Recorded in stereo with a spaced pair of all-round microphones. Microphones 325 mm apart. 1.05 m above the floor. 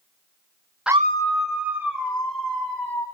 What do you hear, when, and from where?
0.9 s a scream: centre (ahead or behind), 0.5 m; by 3.0 s 80° right, 3 m